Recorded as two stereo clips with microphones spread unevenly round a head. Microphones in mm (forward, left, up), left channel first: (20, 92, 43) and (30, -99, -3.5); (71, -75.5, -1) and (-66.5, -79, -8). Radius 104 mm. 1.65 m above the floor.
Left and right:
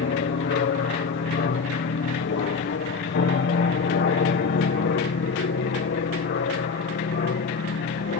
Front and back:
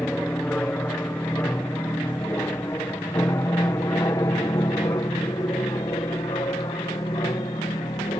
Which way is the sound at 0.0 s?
85° left.